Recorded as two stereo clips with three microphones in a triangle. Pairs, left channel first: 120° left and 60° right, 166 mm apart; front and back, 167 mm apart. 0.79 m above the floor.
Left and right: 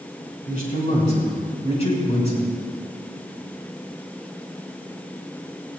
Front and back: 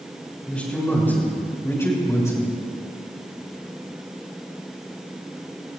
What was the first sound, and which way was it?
A man speaking, 85° left.